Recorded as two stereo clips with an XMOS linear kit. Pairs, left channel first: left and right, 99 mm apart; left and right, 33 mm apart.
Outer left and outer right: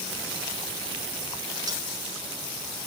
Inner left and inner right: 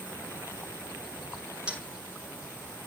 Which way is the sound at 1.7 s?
40° right (ahead or behind).